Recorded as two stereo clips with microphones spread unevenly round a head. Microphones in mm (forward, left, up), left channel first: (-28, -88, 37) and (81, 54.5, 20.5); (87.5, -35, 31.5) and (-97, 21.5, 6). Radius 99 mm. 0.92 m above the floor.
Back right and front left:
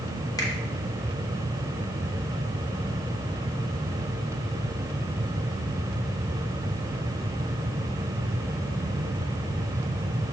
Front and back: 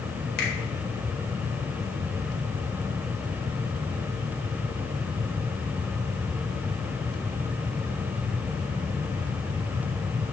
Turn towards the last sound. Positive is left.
turn(degrees=-55)